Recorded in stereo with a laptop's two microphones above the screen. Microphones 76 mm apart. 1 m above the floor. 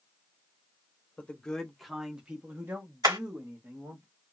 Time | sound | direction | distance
1.2 | a man speaking | 15° left (ahead or behind) | 0.9 m
3.0 | hammering | 60° right (ahead or behind) | 1.5 m